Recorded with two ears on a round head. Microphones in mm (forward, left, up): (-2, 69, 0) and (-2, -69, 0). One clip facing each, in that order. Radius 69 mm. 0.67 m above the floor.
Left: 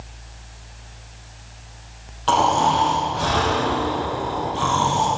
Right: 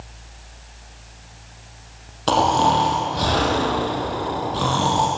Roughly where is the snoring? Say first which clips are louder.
Even; right.